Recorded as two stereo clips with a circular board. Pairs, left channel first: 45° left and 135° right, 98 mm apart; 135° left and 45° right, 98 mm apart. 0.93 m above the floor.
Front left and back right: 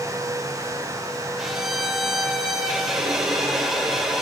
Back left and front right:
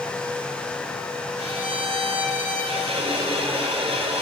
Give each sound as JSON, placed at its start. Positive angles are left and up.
{"t": 1.4, "sound": "a violin", "azimuth_deg": -50, "distance_m": 2.5}